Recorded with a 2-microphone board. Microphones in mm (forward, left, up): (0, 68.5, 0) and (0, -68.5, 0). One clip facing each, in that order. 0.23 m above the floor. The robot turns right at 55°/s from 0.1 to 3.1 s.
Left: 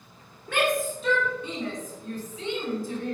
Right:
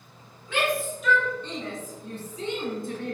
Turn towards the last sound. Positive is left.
turn(degrees=-65)  # may be behind; listen again after turning